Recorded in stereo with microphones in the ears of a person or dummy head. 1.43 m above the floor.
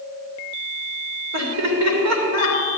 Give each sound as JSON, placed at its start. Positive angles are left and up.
{"t": 1.3, "sound": "laughter", "side_deg": -80, "distance_m": 3.0}